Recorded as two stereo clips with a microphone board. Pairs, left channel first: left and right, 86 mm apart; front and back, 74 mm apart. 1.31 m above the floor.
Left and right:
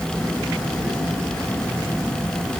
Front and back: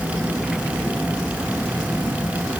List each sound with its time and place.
Only background noise.